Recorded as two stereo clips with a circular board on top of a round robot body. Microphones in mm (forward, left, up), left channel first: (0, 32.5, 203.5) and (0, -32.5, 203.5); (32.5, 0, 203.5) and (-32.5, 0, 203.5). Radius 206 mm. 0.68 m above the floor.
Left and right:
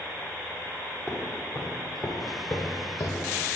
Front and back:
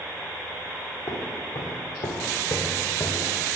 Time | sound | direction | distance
1.1 | footsteps | 5° right | 1.5 m